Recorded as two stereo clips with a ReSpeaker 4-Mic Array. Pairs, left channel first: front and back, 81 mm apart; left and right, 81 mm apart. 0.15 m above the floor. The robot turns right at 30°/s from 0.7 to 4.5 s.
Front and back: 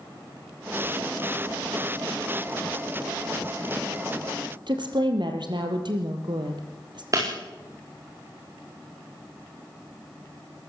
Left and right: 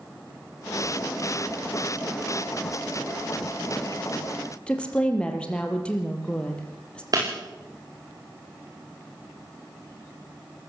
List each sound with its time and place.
4.7 s a woman speaking: 165° left, 3.5 m
7.1 s breaking glass: 135° right, 9.5 m